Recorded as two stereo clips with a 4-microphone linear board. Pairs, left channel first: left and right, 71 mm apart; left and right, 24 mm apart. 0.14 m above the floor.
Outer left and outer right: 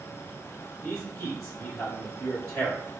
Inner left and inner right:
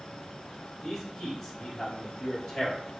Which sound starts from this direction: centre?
A man speaking, at 0.8 s.